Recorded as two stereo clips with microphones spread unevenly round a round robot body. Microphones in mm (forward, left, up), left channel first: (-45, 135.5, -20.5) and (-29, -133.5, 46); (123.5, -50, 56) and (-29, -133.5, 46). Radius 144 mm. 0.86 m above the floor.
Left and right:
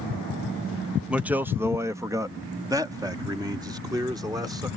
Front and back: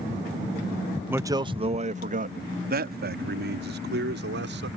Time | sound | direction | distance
1.1 | a man speaking | 155° left | ?